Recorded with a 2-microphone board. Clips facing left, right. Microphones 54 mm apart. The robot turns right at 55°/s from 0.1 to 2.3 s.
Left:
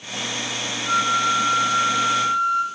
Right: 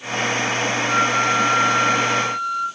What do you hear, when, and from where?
0.9 s a flute: 50° left, 1.1 m; by 2.6 s 130° left, 1.1 m